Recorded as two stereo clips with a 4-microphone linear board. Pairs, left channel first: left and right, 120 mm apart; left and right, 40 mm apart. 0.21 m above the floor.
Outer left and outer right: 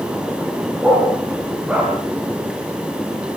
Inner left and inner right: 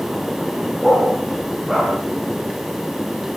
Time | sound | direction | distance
0.8 | a dog barking | 10° right (ahead or behind) | 9.5 m